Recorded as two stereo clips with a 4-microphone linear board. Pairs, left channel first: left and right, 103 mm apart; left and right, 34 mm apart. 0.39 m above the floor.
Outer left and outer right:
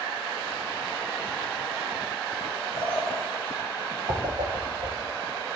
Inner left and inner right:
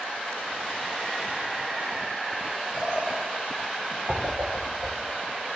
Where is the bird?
25° right (ahead or behind), 7 m.